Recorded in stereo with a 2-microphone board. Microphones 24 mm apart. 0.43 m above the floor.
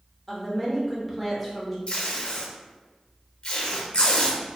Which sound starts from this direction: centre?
A woman speaking, at 0.3 s.